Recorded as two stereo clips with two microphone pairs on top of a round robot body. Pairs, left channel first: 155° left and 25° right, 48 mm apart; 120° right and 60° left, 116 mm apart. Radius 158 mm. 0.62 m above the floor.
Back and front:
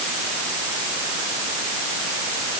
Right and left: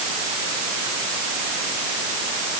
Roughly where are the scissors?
No scissors in this recording.